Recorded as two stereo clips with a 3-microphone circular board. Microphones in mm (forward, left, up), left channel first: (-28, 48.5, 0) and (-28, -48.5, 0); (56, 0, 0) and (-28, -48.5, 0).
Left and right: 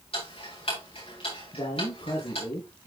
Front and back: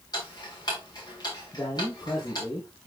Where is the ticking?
75° left, 6 m.